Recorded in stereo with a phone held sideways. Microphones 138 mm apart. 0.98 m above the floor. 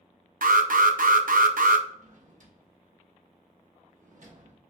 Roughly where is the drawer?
Right.